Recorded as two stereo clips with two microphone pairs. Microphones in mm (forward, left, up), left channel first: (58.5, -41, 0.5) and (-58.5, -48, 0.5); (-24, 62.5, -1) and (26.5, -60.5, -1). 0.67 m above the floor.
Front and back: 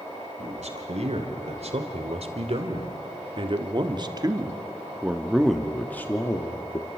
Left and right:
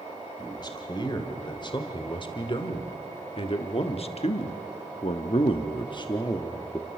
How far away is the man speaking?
About 3 m.